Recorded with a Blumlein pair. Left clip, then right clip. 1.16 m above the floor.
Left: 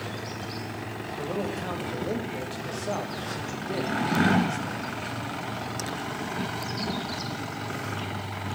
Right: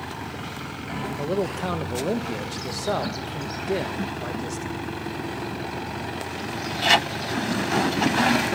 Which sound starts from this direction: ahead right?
A man speaking, at 1.2 s.